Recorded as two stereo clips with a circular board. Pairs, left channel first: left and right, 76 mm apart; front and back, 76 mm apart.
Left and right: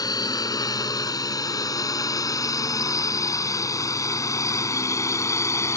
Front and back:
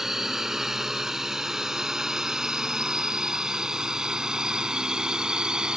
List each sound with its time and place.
0.0 s a drone: 100° left; by 5.8 s 105° left